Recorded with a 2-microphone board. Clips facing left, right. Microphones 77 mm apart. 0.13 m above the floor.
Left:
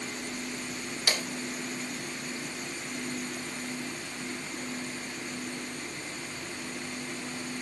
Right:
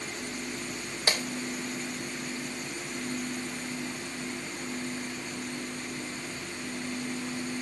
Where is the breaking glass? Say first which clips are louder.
Right 2 dB; 35° right (ahead or behind), 2.5 m.